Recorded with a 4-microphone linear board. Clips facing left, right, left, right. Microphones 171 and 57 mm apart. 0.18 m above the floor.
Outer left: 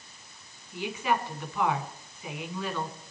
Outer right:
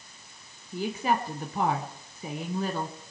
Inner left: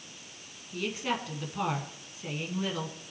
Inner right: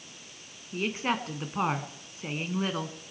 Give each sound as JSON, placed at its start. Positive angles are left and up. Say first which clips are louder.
{"t": 0.7, "sound": "a woman speaking", "louder": "outer right 2 dB, inner right 3 dB", "side_deg": -40, "distance_m": 1.8}